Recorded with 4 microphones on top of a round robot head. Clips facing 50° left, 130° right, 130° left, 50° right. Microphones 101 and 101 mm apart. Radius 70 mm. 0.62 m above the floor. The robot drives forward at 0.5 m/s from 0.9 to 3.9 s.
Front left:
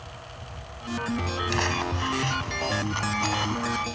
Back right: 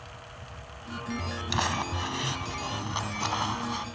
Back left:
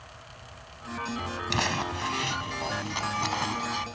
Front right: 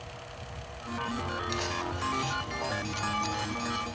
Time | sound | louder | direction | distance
1.5 | crumpling | even, back left 3 dB | 155° left | ?